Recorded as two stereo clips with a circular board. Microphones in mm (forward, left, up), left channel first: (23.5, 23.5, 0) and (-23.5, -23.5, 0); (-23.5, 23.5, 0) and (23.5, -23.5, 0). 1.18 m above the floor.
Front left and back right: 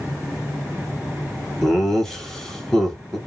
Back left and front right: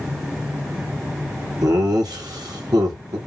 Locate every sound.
1.6 s laughter: 40° right, 0.9 m